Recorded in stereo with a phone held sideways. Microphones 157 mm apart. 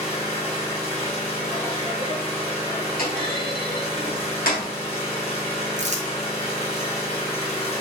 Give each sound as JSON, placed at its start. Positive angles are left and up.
{"t": 0.0, "sound": "an engine running", "side_deg": 40, "distance_m": 1.3}
{"t": 3.0, "sound": "a clunk", "side_deg": 70, "distance_m": 2.5}
{"t": 5.8, "sound": "crumpling", "side_deg": -50, "distance_m": 0.7}